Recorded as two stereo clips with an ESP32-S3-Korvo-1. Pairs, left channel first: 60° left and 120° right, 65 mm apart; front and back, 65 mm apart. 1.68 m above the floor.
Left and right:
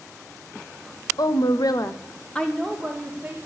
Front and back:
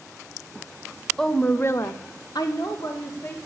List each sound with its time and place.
1.2 s a woman speaking: 80° left, 0.8 m; by 3.4 s 40° right, 1.5 m